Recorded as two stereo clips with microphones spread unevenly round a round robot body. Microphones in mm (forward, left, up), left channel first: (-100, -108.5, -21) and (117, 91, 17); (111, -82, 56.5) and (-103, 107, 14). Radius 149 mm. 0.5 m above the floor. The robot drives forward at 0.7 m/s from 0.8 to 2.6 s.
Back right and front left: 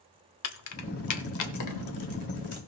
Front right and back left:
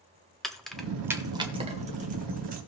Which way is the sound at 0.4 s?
135° right.